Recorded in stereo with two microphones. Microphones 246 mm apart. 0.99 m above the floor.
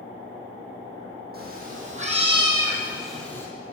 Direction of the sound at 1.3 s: 40° right (ahead or behind).